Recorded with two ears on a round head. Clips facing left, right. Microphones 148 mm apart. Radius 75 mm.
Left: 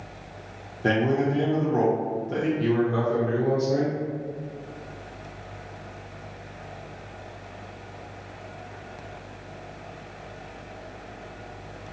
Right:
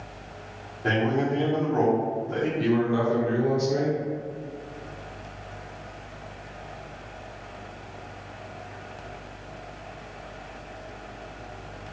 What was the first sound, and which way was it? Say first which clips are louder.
A man speaking: left 2 dB; 35° left (ahead or behind).